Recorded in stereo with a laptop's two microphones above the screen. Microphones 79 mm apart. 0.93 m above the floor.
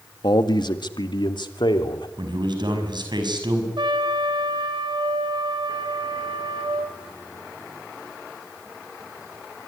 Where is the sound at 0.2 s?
65° left (ahead or behind), 1.6 m; by 2.1 s 75° left (ahead or behind), 3 m.